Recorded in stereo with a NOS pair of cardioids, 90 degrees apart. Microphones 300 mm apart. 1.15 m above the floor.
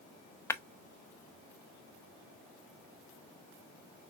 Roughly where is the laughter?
I don't hear laughter.